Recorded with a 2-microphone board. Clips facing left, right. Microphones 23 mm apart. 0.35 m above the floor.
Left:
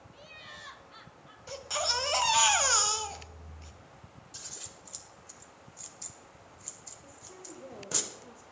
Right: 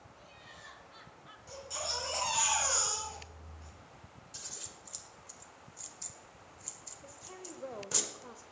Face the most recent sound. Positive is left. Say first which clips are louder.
# right 2 dB
turn(degrees=-40)  # may be behind; listen again after turning